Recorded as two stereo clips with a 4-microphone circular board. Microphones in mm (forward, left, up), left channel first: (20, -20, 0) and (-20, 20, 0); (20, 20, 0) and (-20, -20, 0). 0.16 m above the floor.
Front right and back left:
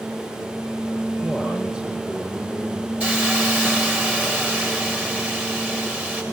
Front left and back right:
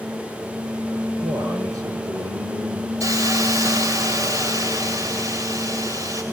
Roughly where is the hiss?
Behind.